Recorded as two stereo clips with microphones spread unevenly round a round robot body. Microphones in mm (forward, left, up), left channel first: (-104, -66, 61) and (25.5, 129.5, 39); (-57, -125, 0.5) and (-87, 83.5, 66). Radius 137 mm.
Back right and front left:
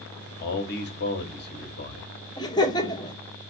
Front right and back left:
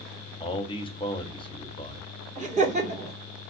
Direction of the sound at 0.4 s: 100° right.